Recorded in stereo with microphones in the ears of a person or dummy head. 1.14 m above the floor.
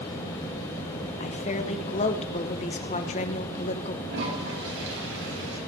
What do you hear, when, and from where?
1.2 s a woman speaking: 35° left (ahead or behind), 0.8 m
4.1 s a toilet flushing: 70° right (ahead or behind), 5 m